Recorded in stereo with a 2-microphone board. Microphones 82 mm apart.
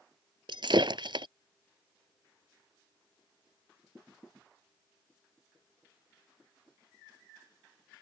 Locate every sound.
0.5 s breaking glass: 70° right (ahead or behind)